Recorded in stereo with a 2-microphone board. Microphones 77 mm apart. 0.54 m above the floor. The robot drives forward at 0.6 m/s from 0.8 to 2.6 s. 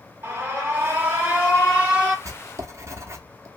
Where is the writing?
40° right (ahead or behind), 0.5 m; by 3.5 s 35° right (ahead or behind), 0.6 m.